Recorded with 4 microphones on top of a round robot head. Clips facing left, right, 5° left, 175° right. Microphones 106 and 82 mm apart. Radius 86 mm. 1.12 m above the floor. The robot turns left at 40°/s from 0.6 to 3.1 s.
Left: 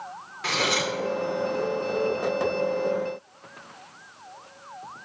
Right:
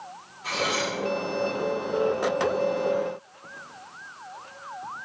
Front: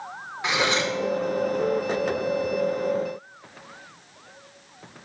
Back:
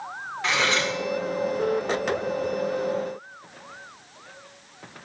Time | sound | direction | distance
0.4 | cutlery clinking | 80° left | 2.5 m